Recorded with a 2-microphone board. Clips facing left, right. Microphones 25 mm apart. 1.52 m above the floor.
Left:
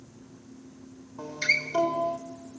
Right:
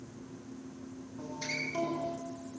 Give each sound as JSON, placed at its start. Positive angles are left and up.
{"t": 1.2, "sound": "a guitar", "side_deg": 55, "distance_m": 3.5}